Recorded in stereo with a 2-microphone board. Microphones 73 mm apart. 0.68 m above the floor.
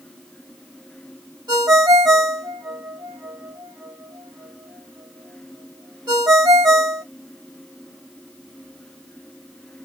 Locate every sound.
1.5 s a ringtone: 80° right, 1.9 m